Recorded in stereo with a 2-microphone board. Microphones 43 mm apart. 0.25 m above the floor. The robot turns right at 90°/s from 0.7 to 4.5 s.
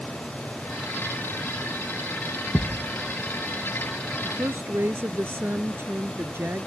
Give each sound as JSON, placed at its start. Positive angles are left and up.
{"t": 2.5, "sound": "a thud", "azimuth_deg": 165}
{"t": 4.2, "sound": "a woman speaking", "side_deg": -70}